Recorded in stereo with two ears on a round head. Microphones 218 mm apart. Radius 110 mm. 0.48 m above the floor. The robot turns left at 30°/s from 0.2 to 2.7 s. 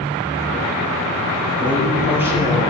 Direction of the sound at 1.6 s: 10° left.